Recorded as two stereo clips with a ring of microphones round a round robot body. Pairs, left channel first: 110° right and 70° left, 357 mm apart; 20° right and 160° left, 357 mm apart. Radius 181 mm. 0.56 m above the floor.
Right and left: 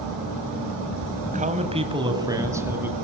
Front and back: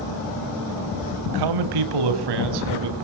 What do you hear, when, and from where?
1.2 s a man speaking: 135° left, 3 m; by 3.0 s 155° left, 5 m